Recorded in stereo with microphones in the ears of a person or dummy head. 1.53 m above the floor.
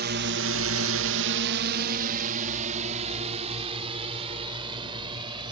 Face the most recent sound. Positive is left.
turn(degrees=-25)  # may be behind; listen again after turning